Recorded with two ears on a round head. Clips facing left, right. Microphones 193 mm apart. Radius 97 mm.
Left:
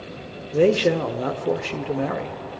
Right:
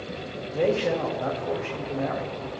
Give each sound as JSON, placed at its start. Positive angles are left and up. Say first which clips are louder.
{"t": 0.5, "sound": "a man speaking", "louder": "left 6 dB", "side_deg": 50, "distance_m": 0.8}